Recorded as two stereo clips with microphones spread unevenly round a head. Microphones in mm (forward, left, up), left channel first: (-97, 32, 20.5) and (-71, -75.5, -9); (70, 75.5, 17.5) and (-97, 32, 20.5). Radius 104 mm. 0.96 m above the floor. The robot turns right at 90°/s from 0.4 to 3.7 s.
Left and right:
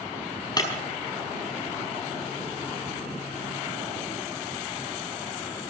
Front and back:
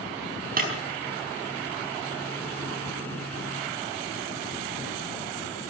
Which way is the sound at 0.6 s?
155° left.